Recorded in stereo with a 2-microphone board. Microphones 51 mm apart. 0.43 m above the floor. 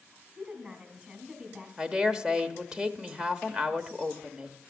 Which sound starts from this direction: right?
A woman speaking, at 0.4 s.